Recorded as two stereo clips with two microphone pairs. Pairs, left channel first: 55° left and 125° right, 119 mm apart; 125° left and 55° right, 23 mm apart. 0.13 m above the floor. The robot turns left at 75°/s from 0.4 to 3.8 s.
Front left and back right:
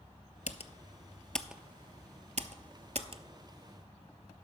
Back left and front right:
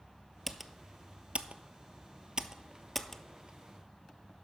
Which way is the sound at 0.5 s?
40° left.